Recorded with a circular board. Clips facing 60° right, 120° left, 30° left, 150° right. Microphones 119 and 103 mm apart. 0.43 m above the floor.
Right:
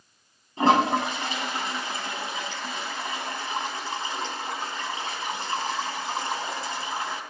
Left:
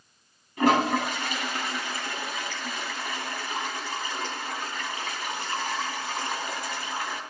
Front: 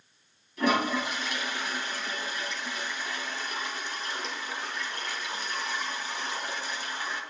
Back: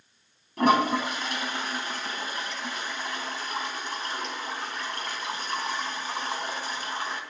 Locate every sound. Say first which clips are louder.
0.6 s a toilet flushing: right 2 dB, back 4 dB; 120° right, 3.5 m